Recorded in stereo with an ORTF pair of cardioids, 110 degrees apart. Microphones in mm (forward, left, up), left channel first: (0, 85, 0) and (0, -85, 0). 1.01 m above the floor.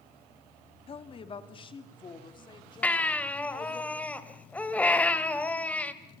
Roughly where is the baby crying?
Ahead.